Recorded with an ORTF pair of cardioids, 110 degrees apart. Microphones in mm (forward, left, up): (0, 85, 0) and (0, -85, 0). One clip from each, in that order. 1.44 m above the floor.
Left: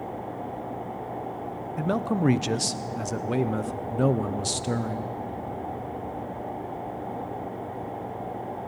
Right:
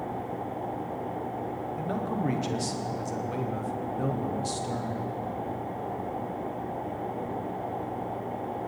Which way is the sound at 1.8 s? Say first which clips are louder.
Left 7 dB; 50° left.